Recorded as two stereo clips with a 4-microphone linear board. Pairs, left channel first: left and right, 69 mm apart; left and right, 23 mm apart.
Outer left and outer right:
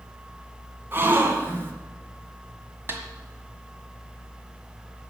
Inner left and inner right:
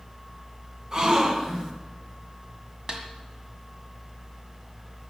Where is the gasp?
30° right (ahead or behind), 1.6 m.